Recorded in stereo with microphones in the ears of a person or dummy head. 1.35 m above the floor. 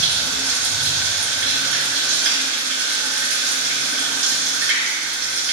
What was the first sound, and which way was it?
Running water, 65° right (ahead or behind).